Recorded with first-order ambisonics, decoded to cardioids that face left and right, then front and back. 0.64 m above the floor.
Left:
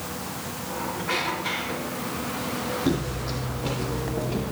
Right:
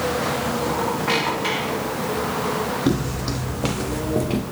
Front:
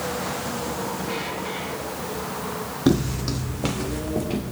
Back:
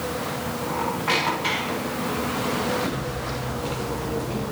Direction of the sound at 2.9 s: 15° right.